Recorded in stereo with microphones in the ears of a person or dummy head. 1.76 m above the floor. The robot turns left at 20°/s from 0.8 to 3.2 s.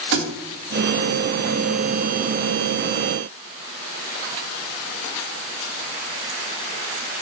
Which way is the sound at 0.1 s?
55° right (ahead or behind).